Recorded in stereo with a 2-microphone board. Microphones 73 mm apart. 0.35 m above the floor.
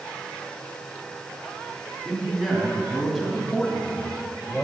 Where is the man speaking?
5° right (ahead or behind), 3 m; by 4.6 s 10° left (ahead or behind), 1.6 m.